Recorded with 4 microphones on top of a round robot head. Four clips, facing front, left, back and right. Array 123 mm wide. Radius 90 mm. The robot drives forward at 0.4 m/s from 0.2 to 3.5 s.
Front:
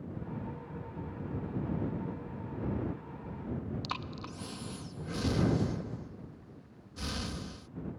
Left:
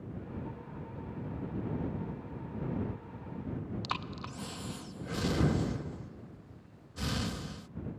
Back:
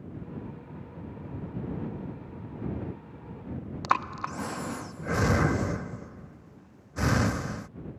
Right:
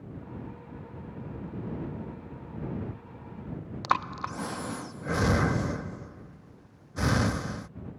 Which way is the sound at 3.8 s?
140° right.